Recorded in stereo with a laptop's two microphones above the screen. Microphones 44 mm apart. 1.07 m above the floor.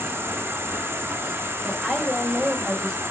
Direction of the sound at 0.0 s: 60° right (ahead or behind).